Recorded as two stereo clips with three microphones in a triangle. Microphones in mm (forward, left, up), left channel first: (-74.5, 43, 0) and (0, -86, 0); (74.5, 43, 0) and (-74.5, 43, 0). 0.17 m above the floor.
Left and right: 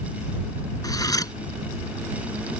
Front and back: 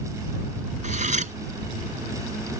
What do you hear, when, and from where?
0.8 s cutlery clinking: straight behind